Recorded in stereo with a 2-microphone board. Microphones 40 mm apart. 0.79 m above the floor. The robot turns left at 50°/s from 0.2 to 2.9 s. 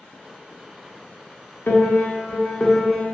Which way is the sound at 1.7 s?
65° left.